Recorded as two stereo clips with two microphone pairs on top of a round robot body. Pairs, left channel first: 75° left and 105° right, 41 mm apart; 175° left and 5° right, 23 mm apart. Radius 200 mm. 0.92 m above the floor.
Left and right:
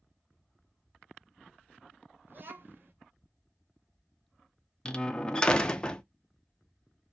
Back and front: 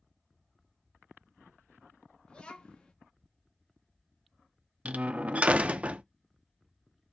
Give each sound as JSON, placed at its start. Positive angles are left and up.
{"t": 2.3, "sound": "a child speaking", "azimuth_deg": -145, "distance_m": 1.0}
{"t": 4.8, "sound": "a door slam", "azimuth_deg": 10, "distance_m": 0.5}